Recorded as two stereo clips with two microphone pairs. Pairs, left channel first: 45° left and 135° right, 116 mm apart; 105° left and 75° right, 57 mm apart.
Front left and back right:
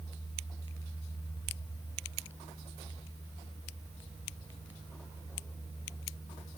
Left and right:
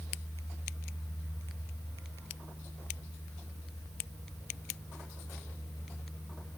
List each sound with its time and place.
Only background noise.